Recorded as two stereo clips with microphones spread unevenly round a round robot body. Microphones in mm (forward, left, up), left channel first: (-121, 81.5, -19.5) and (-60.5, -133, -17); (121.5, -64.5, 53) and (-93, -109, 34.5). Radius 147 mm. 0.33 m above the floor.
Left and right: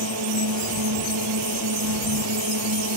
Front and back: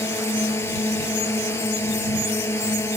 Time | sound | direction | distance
0.0 | a drone | 65° right | ?